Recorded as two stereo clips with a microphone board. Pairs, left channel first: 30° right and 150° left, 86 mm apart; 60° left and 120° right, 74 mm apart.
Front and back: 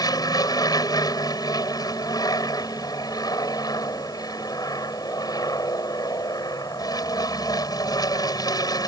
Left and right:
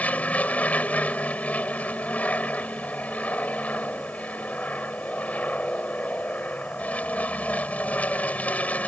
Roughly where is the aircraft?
Ahead.